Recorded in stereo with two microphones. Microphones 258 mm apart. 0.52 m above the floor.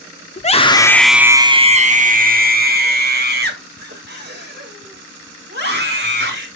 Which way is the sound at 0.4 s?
25° left (ahead or behind).